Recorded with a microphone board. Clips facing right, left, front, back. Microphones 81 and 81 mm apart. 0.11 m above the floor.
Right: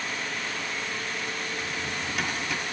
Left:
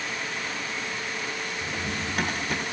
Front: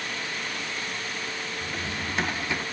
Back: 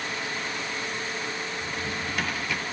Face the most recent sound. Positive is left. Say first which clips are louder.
# left 1 dB, back 1 dB
turn(degrees=60)